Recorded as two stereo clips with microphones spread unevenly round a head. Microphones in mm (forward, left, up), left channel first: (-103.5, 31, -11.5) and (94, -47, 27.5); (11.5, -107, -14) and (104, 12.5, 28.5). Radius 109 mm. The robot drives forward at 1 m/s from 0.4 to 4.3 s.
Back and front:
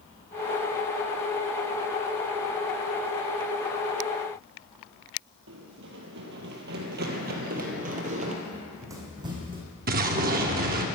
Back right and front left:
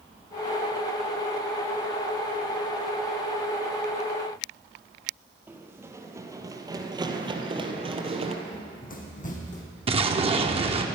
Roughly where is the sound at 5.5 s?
Ahead.